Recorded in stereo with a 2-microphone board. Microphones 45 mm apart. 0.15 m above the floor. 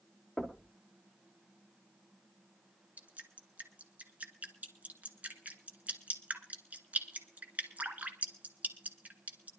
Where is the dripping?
35° right (ahead or behind), 1.8 m.